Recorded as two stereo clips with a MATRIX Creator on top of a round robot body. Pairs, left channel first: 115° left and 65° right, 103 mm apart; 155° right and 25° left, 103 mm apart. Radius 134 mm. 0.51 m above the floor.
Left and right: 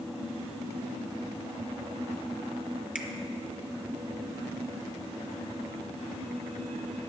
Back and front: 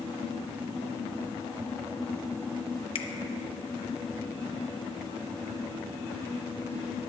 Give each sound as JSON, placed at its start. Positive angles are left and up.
{"t": 3.0, "sound": "a finger snap", "azimuth_deg": -145, "distance_m": 1.2}